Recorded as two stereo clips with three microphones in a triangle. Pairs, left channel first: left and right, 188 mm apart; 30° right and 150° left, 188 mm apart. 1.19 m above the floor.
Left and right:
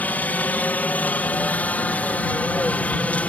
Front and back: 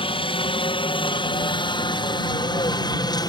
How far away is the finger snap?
No finger snap in this recording.